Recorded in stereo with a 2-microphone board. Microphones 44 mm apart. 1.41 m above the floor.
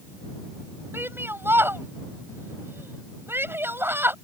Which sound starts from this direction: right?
A shout, at 0.9 s.